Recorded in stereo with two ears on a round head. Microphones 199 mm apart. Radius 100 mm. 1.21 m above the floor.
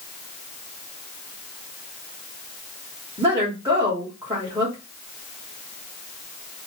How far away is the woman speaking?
About 1.3 m.